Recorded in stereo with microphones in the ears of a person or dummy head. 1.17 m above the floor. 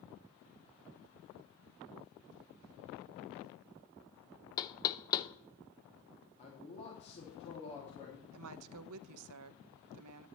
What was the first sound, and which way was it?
Knocking, 20° left (ahead or behind).